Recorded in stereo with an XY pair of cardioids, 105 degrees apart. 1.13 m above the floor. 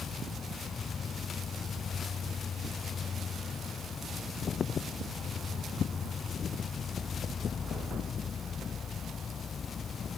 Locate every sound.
0.0 s an insect: 45° left